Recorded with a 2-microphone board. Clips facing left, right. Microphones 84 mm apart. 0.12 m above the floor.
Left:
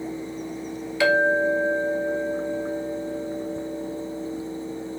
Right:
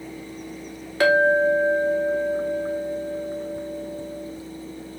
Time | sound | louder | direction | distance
1.0 | a clink | right 2 dB | 45° right (ahead or behind) | 1.1 m